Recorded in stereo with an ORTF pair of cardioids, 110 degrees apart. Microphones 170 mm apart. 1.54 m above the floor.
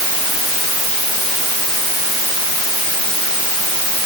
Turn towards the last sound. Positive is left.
No sound to turn to.